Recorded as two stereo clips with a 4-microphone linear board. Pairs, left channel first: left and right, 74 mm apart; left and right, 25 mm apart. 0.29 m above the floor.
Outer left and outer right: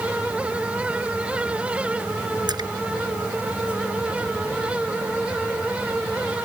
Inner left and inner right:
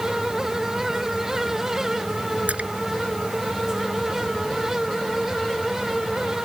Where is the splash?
70° right (ahead or behind).